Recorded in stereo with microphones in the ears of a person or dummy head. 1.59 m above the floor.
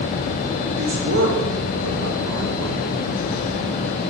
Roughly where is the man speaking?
Right.